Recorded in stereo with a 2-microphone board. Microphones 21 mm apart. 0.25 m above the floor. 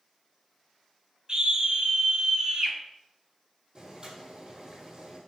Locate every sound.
1.3 s a scream: 40° right (ahead or behind), 1.9 m
3.8 s boiling: 35° right (ahead or behind), 2.5 m